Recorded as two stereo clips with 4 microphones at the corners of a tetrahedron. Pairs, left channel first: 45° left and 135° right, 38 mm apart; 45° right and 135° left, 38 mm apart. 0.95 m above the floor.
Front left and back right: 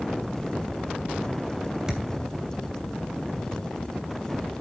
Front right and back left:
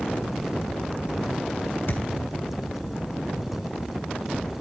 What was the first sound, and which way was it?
A thud, 65° right.